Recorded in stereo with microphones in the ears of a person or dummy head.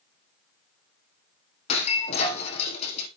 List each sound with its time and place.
1.7 s breaking glass: 35° left (ahead or behind), 4.5 m